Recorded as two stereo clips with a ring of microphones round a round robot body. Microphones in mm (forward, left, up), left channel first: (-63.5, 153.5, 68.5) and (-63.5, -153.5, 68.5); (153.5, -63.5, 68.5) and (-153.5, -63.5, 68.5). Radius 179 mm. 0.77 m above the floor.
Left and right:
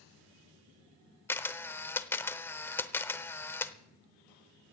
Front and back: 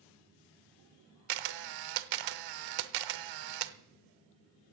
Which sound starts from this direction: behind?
A camera shutter, at 1.3 s.